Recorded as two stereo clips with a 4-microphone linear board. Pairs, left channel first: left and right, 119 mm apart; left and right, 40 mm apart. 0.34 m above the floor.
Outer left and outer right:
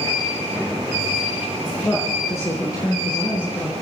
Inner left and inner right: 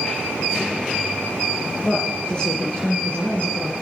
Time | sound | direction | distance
1.8 | a woman speaking | 10° left (ahead or behind) | 4.5 m